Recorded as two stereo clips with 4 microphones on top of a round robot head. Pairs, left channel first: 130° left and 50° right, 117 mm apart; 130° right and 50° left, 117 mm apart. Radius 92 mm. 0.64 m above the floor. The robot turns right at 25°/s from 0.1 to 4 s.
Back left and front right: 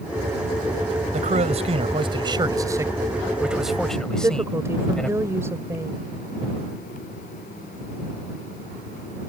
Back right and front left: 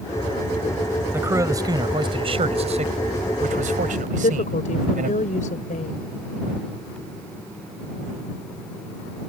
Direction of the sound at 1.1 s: 25° right.